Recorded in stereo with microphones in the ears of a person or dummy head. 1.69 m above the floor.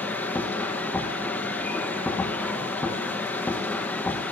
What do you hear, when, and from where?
0.0 s a machine running: 10° left (ahead or behind), 1.5 m